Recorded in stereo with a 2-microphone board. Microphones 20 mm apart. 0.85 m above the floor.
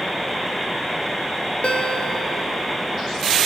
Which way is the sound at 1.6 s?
70° left (ahead or behind).